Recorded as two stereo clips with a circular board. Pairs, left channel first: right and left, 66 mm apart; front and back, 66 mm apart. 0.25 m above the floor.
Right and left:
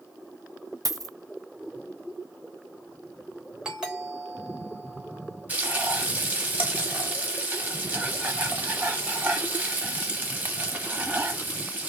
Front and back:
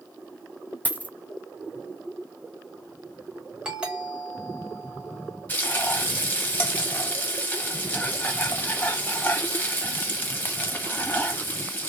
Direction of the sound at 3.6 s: 140° left.